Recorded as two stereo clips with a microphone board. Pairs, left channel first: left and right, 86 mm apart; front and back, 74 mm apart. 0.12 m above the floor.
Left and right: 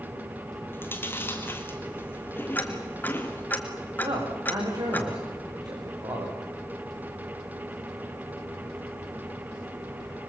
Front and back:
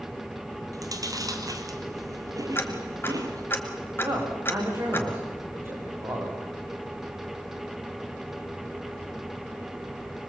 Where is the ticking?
35° left, 2 m.